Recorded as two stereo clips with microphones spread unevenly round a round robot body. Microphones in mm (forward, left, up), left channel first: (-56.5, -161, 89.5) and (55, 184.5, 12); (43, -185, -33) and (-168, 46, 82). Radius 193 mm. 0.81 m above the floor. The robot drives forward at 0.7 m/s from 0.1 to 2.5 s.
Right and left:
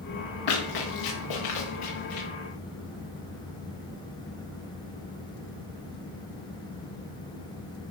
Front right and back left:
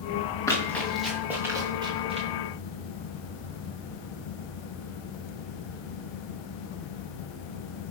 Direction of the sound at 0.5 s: 130° right.